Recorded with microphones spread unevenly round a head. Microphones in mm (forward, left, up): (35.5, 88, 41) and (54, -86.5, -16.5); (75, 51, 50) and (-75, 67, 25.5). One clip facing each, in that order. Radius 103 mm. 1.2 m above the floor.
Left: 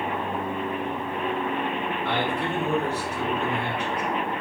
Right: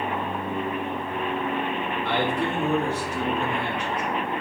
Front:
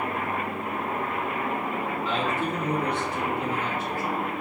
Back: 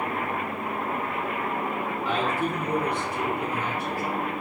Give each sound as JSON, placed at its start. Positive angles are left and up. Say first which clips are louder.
{"t": 2.0, "sound": "a man speaking", "louder": "right 3 dB, back 2 dB", "azimuth_deg": -100, "distance_m": 2.0}